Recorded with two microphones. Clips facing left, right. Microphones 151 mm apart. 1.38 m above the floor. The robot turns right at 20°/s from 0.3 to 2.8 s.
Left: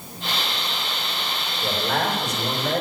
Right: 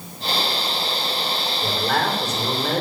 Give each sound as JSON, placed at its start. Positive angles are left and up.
{"t": 1.6, "sound": "a man speaking", "side_deg": -55, "distance_m": 4.5}